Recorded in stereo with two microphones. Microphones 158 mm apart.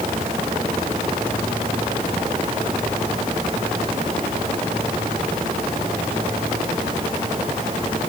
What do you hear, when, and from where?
Only background noise.